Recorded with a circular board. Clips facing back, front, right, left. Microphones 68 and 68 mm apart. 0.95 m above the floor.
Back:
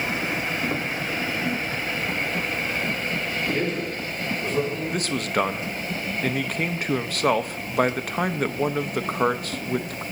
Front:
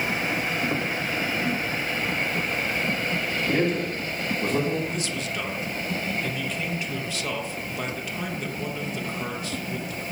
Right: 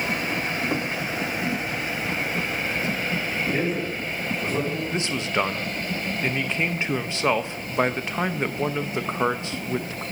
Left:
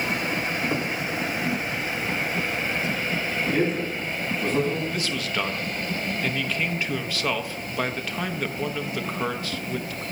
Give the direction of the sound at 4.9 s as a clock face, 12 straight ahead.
5 o'clock.